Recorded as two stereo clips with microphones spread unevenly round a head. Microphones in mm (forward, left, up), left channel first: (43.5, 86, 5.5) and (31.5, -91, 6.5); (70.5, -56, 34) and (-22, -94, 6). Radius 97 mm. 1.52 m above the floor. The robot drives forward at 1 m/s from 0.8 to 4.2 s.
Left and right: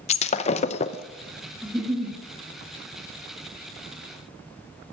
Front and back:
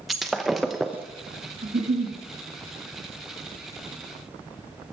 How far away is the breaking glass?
About 0.7 m.